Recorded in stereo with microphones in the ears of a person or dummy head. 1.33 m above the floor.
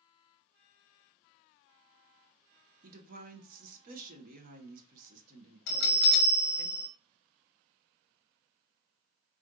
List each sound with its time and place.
2.8 s a woman speaking: 55° right (ahead or behind), 0.9 m
5.7 s a bell: 65° left (ahead or behind), 0.7 m